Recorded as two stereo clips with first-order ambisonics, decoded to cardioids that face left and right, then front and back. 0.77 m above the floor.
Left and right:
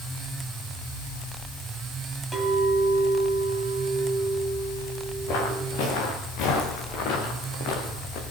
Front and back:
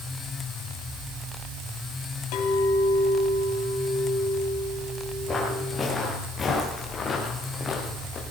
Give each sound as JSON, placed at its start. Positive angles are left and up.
{"t": 2.3, "sound": "a clink", "azimuth_deg": 0, "distance_m": 3.5}
{"t": 5.3, "sound": "footsteps", "azimuth_deg": 70, "distance_m": 5.5}